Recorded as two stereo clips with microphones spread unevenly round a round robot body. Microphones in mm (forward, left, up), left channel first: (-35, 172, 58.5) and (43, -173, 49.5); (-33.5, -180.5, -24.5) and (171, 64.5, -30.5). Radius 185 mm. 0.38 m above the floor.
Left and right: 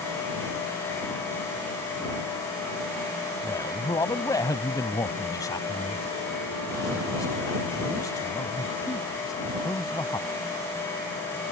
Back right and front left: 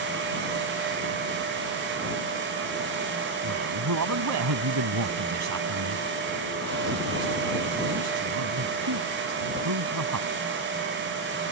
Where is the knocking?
I don't hear knocking.